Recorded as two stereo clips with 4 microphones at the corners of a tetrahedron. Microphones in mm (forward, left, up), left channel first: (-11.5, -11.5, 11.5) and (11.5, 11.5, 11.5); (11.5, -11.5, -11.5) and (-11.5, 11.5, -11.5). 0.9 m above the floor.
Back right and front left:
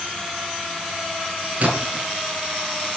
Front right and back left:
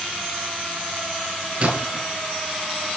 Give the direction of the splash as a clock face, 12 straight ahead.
9 o'clock.